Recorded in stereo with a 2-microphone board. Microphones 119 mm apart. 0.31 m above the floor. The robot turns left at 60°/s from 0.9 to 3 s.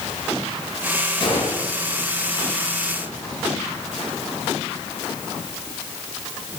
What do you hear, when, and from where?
1.2 s a gunshot: 45° left (ahead or behind), 3 m; by 1.7 s 70° left (ahead or behind), 3 m